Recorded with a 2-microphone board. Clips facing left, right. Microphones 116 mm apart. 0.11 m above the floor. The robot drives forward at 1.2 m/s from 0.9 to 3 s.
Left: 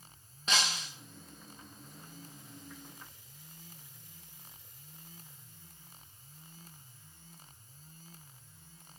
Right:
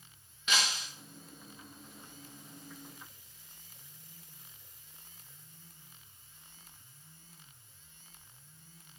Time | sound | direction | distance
0.5 | breaking glass | 35° left (ahead or behind) | 4 m